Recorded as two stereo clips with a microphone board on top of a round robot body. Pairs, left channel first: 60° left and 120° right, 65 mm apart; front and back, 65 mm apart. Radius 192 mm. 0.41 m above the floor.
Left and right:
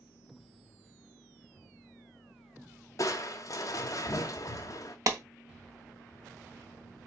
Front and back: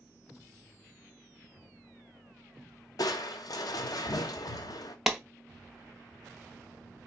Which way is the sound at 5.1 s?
95° right.